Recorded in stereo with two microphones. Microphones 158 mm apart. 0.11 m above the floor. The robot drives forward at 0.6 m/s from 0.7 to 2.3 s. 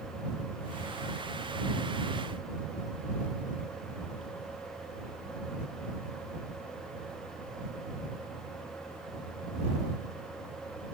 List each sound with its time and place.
Only background noise.